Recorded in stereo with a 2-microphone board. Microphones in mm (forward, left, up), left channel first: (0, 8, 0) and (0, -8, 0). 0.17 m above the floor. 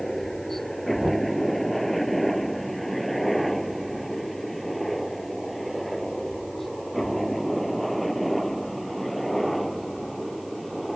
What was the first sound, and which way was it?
A helicopter, 15° left (ahead or behind).